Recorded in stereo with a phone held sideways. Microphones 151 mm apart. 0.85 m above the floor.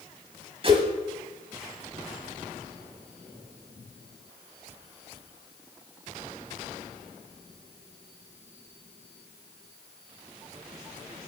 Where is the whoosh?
40° right (ahead or behind), 1.3 m.